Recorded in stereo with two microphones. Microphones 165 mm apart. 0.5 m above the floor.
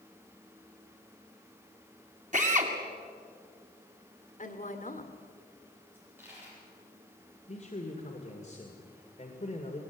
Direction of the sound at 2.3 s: 50° right (ahead or behind).